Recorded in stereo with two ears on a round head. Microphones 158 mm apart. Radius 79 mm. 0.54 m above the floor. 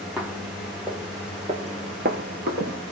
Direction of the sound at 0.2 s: 5° right (ahead or behind).